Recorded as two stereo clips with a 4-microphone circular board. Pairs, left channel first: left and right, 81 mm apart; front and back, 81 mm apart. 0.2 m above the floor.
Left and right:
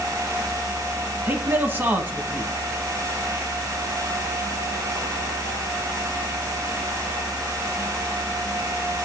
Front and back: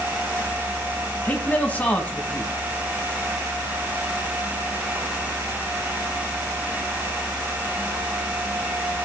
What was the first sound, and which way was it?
A man speaking, 55° right.